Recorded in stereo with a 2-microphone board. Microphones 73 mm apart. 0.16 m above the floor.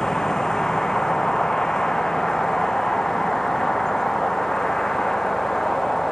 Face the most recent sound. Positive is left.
turn(degrees=10)  # may be behind; listen again after turning